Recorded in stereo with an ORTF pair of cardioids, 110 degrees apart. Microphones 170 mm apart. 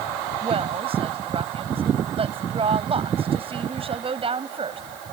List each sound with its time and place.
0.4 s a woman speaking: 35° right